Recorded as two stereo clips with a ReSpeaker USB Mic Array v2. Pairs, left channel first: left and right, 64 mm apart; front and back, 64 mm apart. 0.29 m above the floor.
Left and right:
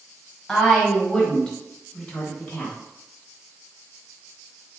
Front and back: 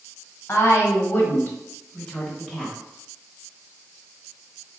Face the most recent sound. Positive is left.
turn(degrees=95)